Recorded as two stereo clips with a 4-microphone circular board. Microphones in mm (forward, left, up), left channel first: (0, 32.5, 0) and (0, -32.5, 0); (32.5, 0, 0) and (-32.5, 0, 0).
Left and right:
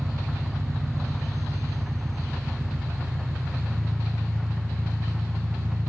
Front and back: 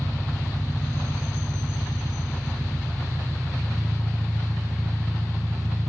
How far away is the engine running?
About 1.4 m.